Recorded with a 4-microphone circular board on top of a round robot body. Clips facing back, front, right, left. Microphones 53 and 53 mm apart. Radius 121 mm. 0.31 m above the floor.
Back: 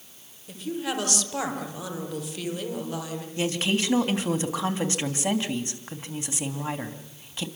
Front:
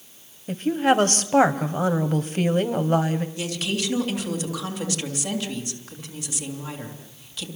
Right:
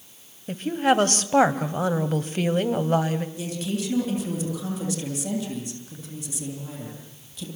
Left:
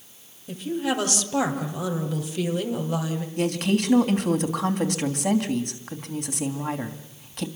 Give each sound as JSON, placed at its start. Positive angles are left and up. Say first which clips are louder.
{"t": 0.5, "sound": "a woman speaking", "louder": "front 10 dB, right 5 dB", "azimuth_deg": -45, "distance_m": 2.0}
{"t": 3.4, "sound": "a woman speaking", "louder": "back 2 dB, left 6 dB", "azimuth_deg": 120, "distance_m": 3.0}